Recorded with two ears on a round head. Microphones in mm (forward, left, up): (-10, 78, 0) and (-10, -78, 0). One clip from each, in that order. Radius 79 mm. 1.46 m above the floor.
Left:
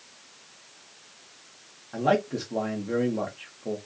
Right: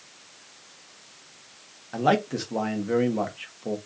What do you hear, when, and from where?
1.9 s a man speaking: 25° right (ahead or behind), 1.3 m